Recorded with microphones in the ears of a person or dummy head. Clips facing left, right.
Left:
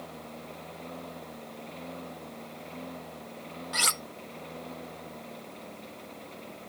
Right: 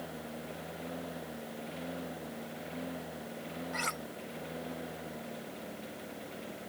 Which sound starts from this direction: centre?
A lawn mower, at 0.0 s.